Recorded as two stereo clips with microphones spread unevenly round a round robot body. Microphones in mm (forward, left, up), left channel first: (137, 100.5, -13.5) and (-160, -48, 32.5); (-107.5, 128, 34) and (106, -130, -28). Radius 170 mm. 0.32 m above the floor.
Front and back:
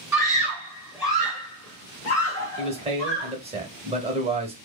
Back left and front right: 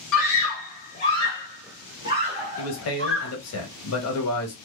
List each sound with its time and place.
0.1 s a scream: 120° left, 1.2 m; by 3.3 s 40° right, 1.6 m
2.6 s a man speaking: 135° left, 0.9 m